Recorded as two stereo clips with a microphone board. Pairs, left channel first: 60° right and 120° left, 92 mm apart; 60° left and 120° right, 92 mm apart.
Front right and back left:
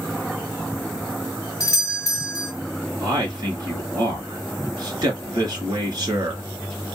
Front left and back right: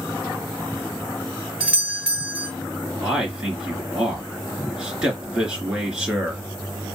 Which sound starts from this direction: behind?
A man speaking, at 3.0 s.